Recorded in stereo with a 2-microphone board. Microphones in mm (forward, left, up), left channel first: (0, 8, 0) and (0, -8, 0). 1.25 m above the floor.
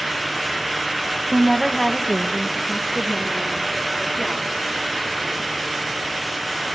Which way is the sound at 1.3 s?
15° right (ahead or behind).